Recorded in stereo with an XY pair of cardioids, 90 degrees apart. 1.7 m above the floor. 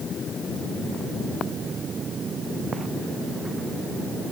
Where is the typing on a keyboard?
I don't hear typing on a keyboard.